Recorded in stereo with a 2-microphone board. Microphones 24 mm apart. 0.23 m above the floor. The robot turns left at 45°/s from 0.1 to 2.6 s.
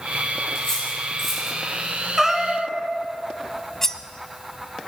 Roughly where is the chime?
I don't hear a chime.